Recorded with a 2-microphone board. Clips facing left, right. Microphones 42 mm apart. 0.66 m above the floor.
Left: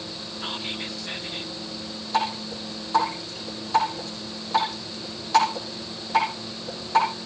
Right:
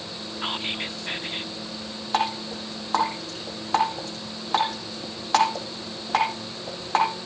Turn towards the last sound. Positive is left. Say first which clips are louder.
# even
turn(degrees=-50)  # may be behind; listen again after turning